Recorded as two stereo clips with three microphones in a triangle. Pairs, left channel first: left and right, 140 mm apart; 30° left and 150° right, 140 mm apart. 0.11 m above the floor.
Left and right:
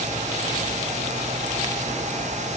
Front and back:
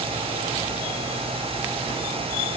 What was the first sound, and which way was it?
Only background noise.